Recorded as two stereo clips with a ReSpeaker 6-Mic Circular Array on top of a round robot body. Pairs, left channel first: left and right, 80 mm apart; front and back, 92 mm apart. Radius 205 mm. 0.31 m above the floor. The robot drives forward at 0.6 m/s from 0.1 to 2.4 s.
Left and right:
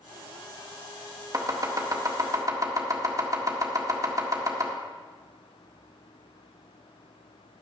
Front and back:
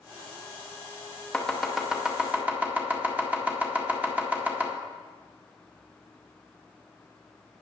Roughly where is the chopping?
Right.